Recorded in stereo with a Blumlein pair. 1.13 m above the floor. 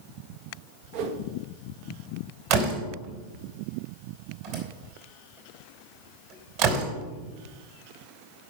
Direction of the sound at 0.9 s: 50° right.